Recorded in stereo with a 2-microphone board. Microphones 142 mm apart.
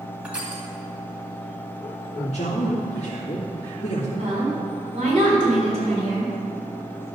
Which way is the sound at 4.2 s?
50° right (ahead or behind).